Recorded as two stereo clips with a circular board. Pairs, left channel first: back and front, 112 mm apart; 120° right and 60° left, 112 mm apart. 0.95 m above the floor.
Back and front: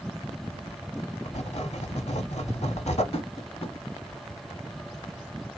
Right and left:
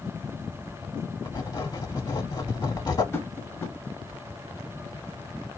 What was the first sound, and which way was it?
Writing, 170° right.